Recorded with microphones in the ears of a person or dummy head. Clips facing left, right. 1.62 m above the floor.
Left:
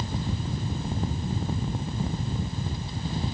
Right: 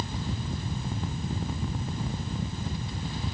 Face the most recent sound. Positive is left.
No sound to turn to.